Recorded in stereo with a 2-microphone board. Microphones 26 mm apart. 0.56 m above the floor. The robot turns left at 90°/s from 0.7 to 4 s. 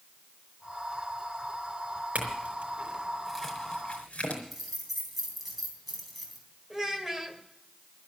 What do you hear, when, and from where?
2.1 s a clink: 65° right (ahead or behind), 4 m; by 4.4 s 50° left (ahead or behind), 4 m
4.5 s keys jangling: 5° right (ahead or behind), 3.5 m
6.7 s a child speaking: 20° right (ahead or behind), 2 m